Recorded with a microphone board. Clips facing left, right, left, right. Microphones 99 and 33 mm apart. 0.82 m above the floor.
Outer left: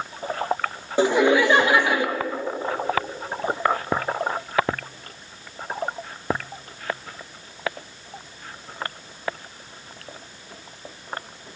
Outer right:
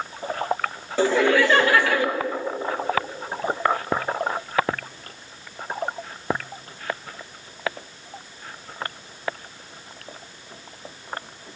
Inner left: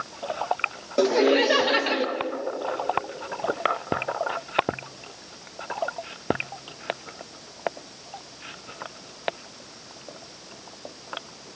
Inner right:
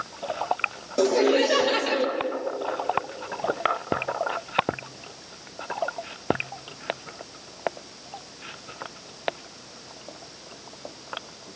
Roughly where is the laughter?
Centre.